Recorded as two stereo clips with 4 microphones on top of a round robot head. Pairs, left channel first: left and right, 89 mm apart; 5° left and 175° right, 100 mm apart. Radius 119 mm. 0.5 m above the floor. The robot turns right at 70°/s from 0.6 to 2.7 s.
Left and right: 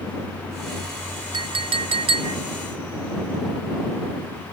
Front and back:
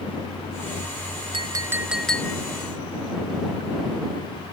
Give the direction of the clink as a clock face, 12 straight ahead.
4 o'clock.